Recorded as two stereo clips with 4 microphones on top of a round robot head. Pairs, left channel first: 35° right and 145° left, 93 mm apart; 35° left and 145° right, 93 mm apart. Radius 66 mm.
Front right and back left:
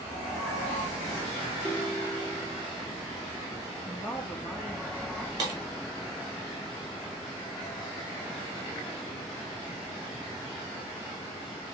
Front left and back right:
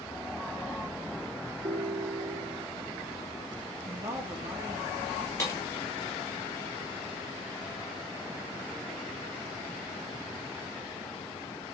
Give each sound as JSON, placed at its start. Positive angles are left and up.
{"t": 1.6, "sound": "a ringtone", "azimuth_deg": -105, "distance_m": 1.0}
{"t": 3.8, "sound": "a woman speaking", "azimuth_deg": -105, "distance_m": 1.4}
{"t": 5.4, "sound": "breaking glass", "azimuth_deg": 95, "distance_m": 1.5}